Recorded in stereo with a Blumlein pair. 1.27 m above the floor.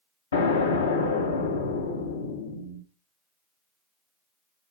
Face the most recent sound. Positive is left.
turn(degrees=65)